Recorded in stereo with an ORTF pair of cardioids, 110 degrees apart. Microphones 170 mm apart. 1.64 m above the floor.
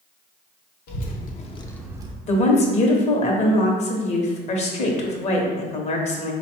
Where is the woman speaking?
40° left, 1.1 m.